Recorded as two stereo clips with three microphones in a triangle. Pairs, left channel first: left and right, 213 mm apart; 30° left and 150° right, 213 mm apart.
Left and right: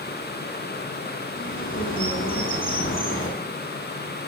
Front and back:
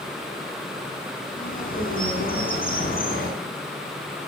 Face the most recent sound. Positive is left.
turn(degrees=75)